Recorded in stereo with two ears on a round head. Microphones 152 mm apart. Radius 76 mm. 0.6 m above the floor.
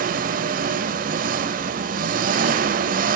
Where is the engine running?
50° right (ahead or behind), 1.1 m.